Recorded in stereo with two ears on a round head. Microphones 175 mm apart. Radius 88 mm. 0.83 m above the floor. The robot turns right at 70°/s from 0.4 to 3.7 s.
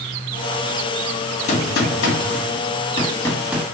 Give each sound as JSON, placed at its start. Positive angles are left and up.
{"t": 1.5, "sound": "a gunshot", "azimuth_deg": 45, "distance_m": 1.8}